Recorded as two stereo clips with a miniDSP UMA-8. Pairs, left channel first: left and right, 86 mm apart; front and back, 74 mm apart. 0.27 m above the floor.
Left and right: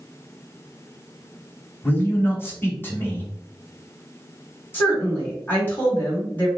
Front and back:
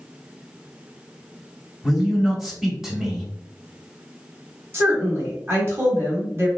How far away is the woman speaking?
About 1.7 m.